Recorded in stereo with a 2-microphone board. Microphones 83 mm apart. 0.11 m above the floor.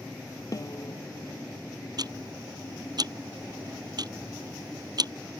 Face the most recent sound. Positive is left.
turn(degrees=-55)  # may be behind; listen again after turning